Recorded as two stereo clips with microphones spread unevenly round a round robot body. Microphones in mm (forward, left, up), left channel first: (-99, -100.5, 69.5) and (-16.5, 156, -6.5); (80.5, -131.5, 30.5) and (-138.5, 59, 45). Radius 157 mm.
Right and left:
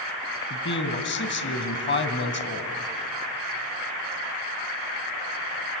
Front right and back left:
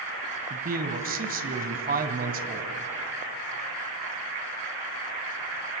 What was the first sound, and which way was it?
A man speaking, 160° right.